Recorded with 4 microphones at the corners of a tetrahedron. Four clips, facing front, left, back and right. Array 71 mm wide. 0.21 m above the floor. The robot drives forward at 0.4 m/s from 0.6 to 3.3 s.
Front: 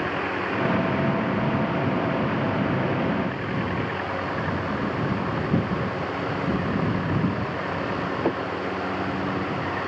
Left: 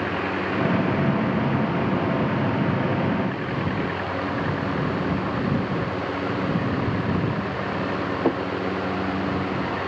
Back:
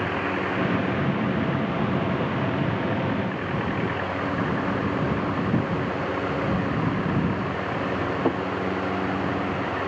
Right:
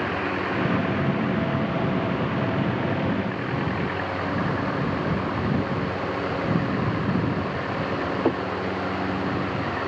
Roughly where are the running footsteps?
I don't hear running footsteps.